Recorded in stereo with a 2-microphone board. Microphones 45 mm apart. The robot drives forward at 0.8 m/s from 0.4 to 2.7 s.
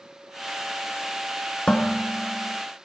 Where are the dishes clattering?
25° left (ahead or behind), 1.1 m; by 2.6 s 15° left (ahead or behind), 1.8 m.